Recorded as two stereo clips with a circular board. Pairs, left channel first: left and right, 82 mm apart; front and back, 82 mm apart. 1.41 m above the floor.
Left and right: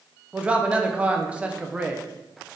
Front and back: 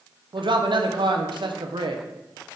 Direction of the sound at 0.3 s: 165° right.